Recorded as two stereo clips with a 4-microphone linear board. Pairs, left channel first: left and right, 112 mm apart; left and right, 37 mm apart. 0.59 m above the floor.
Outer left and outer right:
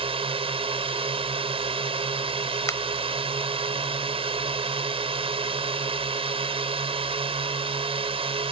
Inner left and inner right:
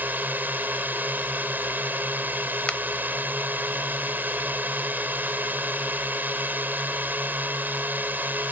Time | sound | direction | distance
0.0 | a drone | 60° right (ahead or behind) | ?
2.7 | a finger snap | 25° left (ahead or behind) | ?